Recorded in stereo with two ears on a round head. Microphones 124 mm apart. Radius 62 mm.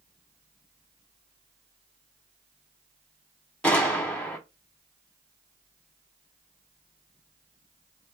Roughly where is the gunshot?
Centre.